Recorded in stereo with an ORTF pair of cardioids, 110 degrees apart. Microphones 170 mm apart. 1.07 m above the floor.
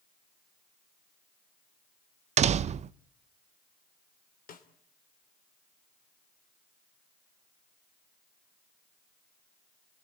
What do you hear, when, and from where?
2.4 s a door slam: 40° right, 0.7 m
4.5 s a snare drum: 50° left, 3 m